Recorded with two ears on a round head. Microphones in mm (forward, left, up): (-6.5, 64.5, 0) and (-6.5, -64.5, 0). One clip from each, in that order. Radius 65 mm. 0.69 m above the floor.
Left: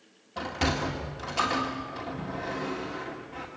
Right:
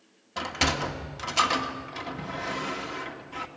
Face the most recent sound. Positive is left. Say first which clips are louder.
# right 3 dB
turn(degrees=-55)  # may be behind; listen again after turning